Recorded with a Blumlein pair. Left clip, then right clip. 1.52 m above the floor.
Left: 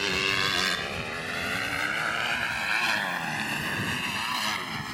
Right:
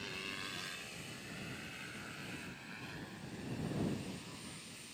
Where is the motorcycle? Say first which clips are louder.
Left 18 dB; 55° left; by 5.0 s 45° left.